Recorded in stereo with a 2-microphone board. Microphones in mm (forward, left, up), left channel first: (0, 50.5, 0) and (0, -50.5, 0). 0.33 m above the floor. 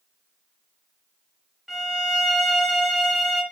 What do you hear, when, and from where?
1.7 s a violin: centre (ahead or behind), 1.1 m